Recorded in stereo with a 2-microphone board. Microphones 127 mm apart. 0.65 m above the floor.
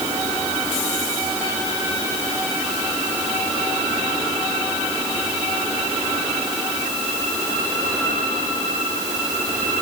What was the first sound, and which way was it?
Only background noise.